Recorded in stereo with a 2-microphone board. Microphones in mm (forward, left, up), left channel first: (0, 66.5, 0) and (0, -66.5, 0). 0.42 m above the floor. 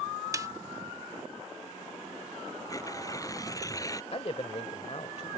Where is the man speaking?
50° left (ahead or behind).